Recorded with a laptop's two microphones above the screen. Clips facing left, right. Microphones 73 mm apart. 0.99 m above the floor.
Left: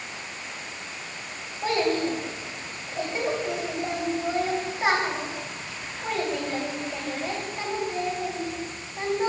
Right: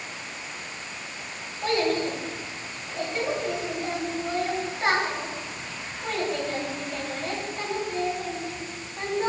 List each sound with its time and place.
1.6 s a child speaking: 10° left (ahead or behind), 2.5 m